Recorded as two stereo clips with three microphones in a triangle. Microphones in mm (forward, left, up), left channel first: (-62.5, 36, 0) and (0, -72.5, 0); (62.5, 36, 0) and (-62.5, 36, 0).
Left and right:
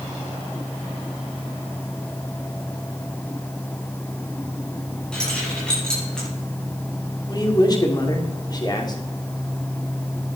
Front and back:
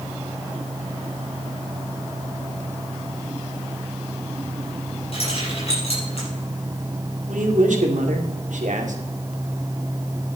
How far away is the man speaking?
About 2.5 m.